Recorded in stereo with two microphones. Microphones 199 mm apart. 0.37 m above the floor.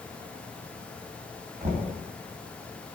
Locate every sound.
1.6 s knocking: 35° right (ahead or behind), 2.5 m